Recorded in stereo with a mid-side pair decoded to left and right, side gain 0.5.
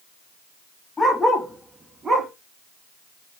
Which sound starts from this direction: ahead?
A dog barking, at 1.0 s.